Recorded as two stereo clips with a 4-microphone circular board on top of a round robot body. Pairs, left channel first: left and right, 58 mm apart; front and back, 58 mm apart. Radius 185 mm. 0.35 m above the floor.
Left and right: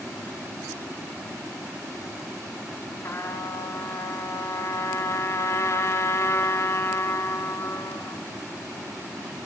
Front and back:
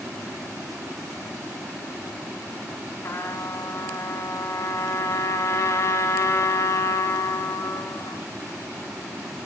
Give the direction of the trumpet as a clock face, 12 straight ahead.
11 o'clock.